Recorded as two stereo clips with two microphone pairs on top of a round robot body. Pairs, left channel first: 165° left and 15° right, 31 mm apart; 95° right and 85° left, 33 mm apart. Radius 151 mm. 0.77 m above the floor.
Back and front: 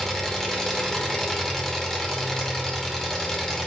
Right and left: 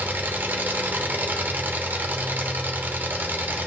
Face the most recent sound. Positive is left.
turn(degrees=90)